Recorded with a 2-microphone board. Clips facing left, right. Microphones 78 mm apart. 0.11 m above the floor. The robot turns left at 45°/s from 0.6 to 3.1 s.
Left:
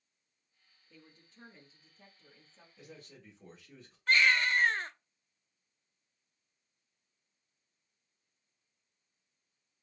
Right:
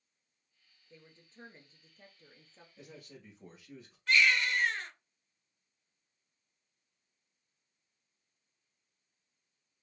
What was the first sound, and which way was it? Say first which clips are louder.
A woman speaking: right 2 dB; 30° right.